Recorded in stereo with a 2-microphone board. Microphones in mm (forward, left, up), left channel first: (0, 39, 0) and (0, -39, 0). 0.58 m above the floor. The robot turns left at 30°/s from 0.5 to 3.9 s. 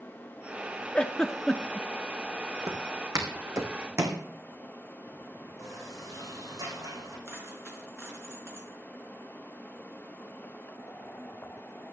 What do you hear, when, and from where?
0.9 s a giggle: 15° left (ahead or behind), 0.8 m; by 1.9 s centre (ahead or behind), 0.8 m
2.7 s footsteps: 55° right (ahead or behind), 2.5 m; by 4.2 s 40° right (ahead or behind), 2 m
5.6 s a sliding door: 45° right (ahead or behind), 9 m
7.2 s a dropped coin: 35° right (ahead or behind), 4 m